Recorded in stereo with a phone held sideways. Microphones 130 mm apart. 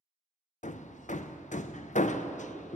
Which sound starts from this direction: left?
Hammering, at 0.6 s.